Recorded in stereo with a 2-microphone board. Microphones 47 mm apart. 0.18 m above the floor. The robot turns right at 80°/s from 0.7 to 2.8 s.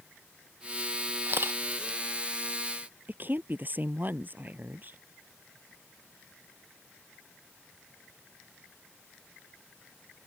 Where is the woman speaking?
40° right (ahead or behind).